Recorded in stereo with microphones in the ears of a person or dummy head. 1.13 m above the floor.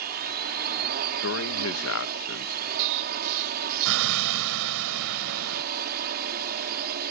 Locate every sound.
0.0 s a drone: 45° right (ahead or behind)
1.2 s a man speaking: 65° left (ahead or behind)
2.8 s an explosion: 75° right (ahead or behind)